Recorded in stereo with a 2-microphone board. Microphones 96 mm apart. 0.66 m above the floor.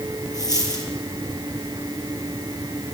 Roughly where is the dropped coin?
Left.